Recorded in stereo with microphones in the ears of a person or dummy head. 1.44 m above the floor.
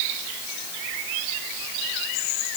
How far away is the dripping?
I don't hear dripping.